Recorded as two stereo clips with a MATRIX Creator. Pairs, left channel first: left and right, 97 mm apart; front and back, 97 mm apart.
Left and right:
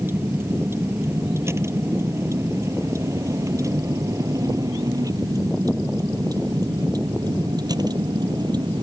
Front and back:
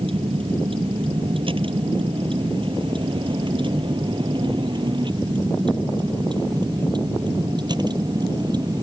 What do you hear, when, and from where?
0.0 s a vehicle: 160° right; by 8.8 s 135° right